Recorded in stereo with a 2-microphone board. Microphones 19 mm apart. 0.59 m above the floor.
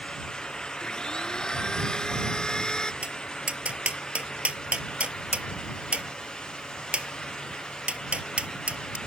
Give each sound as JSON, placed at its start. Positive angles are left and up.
{"t": 0.8, "sound": "a blender", "side_deg": 40}
{"t": 3.0, "sound": "tapping", "side_deg": -85}